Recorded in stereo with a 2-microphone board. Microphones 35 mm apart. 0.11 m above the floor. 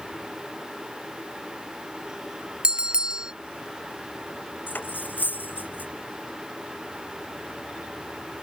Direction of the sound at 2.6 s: 25° right (ahead or behind).